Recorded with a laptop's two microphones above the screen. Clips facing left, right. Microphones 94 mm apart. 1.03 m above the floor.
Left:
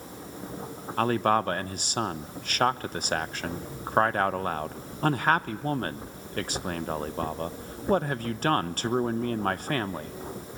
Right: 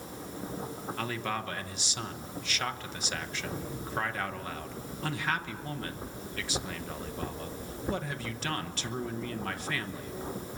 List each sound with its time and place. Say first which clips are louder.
1.0 s a man speaking: left 12 dB; 50° left (ahead or behind), 0.8 m